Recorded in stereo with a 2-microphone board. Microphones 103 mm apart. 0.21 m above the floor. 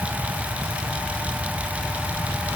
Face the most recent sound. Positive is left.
No sound to turn to.